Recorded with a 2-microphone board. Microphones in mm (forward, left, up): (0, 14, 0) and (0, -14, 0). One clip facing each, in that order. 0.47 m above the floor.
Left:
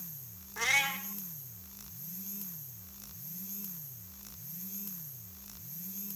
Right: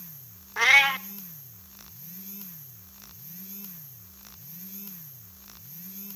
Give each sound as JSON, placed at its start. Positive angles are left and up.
{"t": 0.6, "sound": "a cat meowing", "side_deg": -45, "distance_m": 0.6}